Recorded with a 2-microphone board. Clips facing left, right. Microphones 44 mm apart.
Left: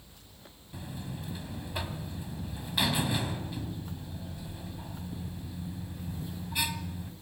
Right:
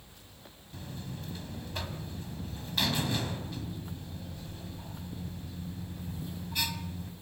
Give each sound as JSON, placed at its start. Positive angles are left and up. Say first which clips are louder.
{"t": 0.7, "sound": "a buzzer", "louder": "left 2 dB", "side_deg": 15, "distance_m": 1.6}